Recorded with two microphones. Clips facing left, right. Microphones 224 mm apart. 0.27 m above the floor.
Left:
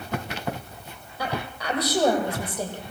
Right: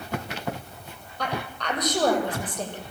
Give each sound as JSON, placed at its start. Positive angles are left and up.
{"t": 1.2, "sound": "a woman speaking", "side_deg": 5, "distance_m": 9.5}